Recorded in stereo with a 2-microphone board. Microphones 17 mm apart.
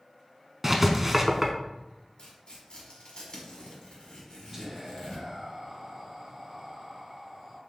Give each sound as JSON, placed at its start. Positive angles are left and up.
{"t": 0.6, "sound": "writing", "side_deg": -15, "distance_m": 0.6}
{"t": 2.2, "sound": "tearing paper", "side_deg": 60, "distance_m": 1.4}
{"t": 4.5, "sound": "whispering", "side_deg": -30, "distance_m": 1.1}